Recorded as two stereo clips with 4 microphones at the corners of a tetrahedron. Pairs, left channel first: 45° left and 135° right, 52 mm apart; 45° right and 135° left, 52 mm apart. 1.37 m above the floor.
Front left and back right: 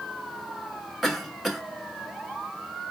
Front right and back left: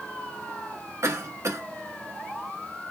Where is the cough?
135° left, 2 m.